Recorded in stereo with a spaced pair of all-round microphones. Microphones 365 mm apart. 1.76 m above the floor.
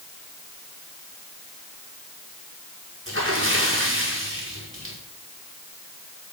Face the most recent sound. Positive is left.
turn(degrees=-35)  # may be behind; listen again after turning